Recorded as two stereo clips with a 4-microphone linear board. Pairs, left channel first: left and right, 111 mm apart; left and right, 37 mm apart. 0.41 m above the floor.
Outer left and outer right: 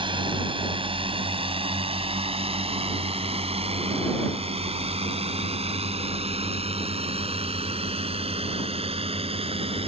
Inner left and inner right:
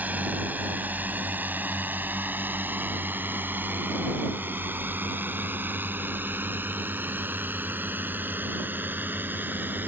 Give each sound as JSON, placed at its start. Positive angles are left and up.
{"t": 0.0, "sound": "a drone", "side_deg": -55}